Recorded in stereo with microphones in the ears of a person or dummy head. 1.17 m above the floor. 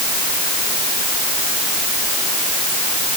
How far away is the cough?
No cough in this recording.